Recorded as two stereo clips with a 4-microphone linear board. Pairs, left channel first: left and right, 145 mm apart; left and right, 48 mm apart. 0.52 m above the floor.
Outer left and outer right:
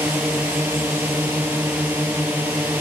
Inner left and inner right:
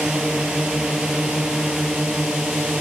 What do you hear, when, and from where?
0.0 s a drone: 10° right (ahead or behind)